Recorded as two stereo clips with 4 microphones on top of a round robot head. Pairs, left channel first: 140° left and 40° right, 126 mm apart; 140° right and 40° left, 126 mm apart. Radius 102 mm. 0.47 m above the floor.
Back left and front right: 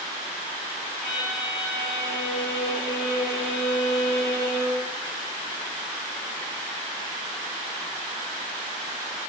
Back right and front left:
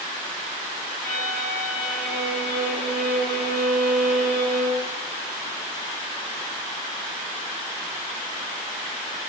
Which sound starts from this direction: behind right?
A violin, at 1.0 s.